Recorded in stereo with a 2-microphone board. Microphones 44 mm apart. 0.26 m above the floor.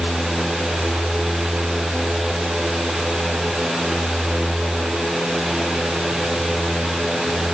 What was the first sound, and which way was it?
Only background noise.